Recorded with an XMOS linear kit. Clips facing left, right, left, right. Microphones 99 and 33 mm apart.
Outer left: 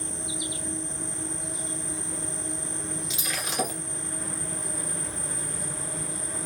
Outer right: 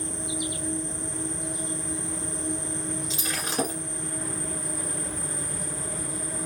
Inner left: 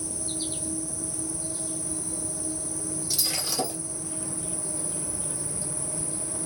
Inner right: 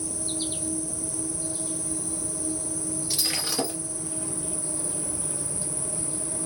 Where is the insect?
50° right (ahead or behind), 2 m.